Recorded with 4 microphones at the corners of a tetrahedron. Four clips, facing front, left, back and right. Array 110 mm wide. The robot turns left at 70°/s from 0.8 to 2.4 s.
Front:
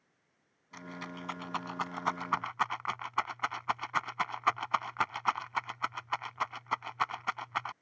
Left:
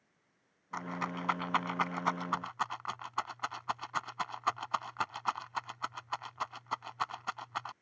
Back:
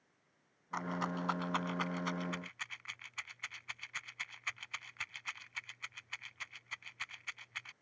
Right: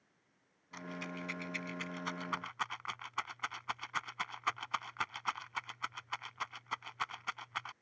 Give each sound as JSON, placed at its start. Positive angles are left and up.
{"t": 0.7, "sound": "a rattle", "azimuth_deg": 135}